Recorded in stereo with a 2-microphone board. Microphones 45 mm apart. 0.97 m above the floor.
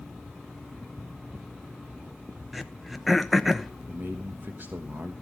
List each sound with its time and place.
2.5 s throat clearing: 5° right (ahead or behind), 0.8 m
3.9 s a man speaking: 50° right (ahead or behind), 1.1 m